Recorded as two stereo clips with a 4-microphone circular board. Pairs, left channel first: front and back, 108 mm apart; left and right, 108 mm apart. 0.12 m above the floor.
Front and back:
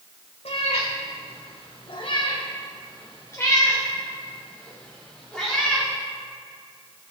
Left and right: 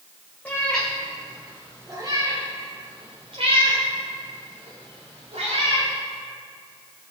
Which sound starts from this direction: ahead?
A cat meowing, at 0.5 s.